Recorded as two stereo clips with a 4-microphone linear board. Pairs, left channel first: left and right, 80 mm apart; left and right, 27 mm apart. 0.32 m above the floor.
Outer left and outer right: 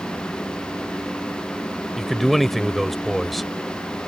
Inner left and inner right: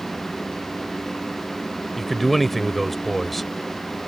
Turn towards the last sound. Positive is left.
turn(degrees=0)  # may be behind; listen again after turning